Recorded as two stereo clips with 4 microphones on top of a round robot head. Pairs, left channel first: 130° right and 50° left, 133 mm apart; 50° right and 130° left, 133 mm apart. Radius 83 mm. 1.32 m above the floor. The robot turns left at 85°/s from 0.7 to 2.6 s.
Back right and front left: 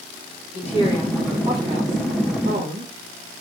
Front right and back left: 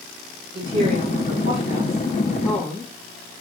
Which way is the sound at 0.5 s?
175° right.